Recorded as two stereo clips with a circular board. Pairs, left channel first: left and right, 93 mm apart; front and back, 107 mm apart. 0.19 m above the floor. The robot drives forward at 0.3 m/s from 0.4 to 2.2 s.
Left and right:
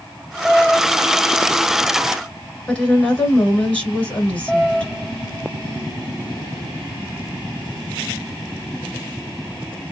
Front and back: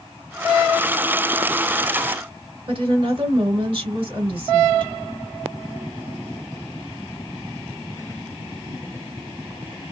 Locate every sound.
2.7 s a woman speaking: 165° left, 2.5 m